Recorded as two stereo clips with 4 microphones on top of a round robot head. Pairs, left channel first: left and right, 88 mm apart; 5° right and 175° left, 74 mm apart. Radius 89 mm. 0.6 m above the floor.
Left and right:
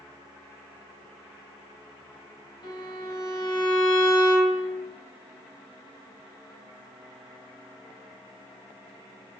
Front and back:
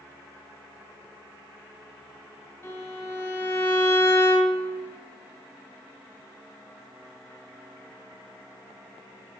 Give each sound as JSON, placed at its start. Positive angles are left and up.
{"t": 2.6, "sound": "a violin", "azimuth_deg": 50, "distance_m": 3.5}